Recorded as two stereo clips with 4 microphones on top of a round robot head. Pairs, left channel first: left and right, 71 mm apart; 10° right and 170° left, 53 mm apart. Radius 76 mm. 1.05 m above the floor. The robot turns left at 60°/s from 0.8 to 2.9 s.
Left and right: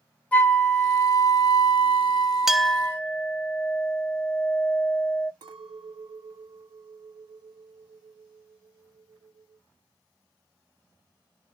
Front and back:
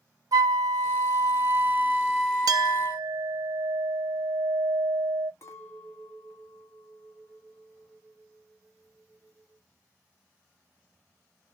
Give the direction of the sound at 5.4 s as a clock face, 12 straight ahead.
2 o'clock.